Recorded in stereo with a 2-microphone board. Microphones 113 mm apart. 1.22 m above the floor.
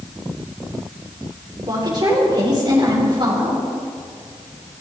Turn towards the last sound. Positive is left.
turn(degrees=-40)  # may be behind; listen again after turning